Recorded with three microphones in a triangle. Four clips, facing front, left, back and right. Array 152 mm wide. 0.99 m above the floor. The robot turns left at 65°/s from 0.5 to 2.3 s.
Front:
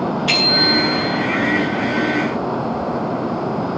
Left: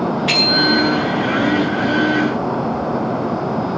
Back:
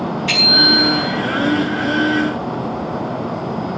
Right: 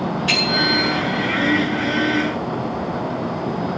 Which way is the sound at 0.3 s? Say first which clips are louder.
Left 3 dB, back 1 dB; 50° left.